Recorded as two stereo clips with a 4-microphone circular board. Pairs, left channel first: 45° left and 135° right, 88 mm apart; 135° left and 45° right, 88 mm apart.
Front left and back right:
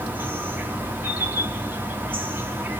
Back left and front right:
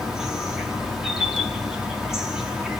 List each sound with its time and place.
0.0 s an insect: 120° right, 0.7 m